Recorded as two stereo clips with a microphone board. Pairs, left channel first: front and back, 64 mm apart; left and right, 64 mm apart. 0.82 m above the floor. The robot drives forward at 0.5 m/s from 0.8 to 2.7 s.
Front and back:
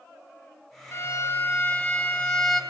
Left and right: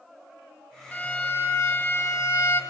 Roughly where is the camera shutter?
No camera shutter in this recording.